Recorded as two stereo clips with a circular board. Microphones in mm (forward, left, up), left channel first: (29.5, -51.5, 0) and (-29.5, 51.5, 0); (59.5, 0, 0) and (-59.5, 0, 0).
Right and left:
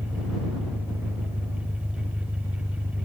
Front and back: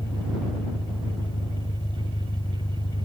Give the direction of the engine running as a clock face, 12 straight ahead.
10 o'clock.